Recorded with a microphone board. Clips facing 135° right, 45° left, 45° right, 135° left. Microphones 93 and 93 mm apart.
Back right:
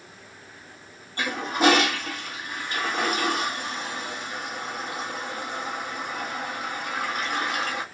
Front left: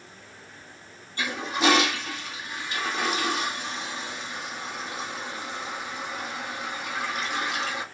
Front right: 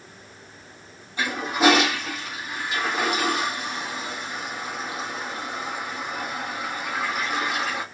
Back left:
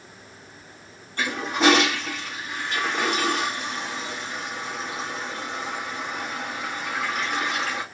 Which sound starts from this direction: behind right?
A toilet flushing, at 1.2 s.